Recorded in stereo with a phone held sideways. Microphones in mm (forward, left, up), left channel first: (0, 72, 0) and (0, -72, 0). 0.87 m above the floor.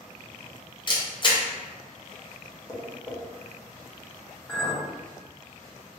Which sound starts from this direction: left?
A camera shutter, at 0.9 s.